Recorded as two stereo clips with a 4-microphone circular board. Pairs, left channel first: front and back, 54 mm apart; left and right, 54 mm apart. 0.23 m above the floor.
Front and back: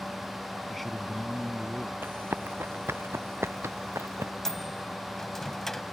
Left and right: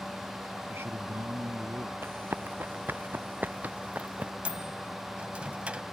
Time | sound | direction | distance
0.7 | a man speaking | 85° right | ?
2.0 | running footsteps | 130° right | ?
4.5 | a microwave | 70° right | ?